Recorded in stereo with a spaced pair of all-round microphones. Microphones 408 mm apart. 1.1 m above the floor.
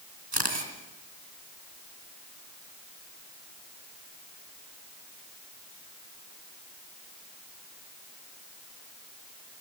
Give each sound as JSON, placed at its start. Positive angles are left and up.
{"t": 0.3, "sound": "a camera shutter", "side_deg": -75, "distance_m": 3.0}